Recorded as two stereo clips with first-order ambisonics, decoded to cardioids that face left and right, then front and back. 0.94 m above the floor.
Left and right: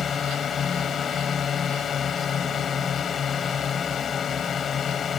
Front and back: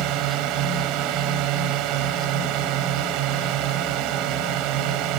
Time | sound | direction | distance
0.0 | a drone | 150° left | ?